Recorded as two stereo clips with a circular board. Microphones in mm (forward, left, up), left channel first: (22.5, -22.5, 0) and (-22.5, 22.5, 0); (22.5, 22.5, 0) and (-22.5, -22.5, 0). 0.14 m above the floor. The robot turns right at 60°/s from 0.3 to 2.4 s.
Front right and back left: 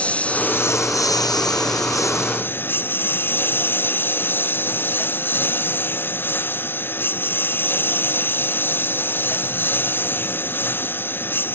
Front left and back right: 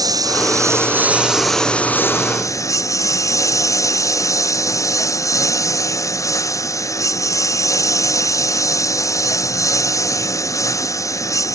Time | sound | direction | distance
0.0 | a lawn mower | 115° right | ?